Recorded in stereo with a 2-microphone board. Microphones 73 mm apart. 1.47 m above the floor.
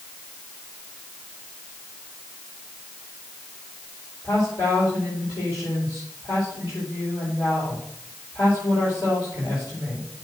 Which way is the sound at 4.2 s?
65° left (ahead or behind).